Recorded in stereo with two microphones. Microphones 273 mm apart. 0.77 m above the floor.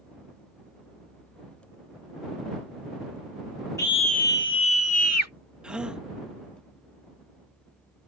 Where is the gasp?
5° right (ahead or behind).